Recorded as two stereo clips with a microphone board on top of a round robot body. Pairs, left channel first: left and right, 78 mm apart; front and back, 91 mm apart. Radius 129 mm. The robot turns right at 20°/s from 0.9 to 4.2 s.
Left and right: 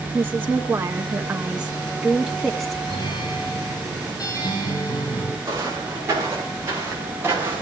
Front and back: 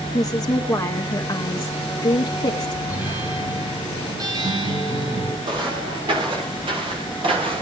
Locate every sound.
0.1 s a woman speaking: 35° right, 1.4 m; by 2.8 s 5° left, 1.4 m
2.9 s a guitar: 110° left, 8 m; by 5.3 s 135° left, 8 m
5.4 s footsteps: 145° right, 7 m; by 7.6 s 155° right, 7 m